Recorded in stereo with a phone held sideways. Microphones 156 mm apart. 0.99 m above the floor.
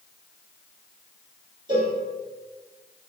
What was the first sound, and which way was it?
A cowbell, 30° right (ahead or behind).